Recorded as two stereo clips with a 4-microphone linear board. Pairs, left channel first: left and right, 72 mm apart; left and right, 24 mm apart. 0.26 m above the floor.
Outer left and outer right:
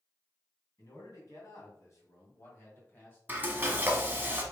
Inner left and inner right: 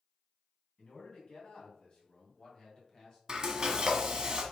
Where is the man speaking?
55° left (ahead or behind), 2.5 m; by 3.2 s 30° left (ahead or behind), 1.5 m.